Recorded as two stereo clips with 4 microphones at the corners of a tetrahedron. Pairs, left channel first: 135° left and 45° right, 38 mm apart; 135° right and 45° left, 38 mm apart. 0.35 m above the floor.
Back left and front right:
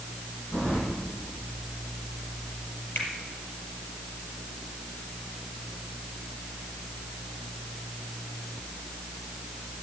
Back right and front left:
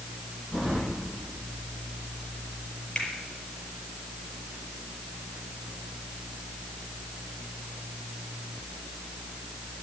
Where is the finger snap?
155° left, 5.5 m.